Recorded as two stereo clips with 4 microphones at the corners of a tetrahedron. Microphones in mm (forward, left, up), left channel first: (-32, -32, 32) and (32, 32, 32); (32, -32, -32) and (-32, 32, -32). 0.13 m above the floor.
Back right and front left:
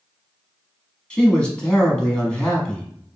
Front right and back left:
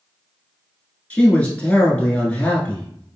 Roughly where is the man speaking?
Right.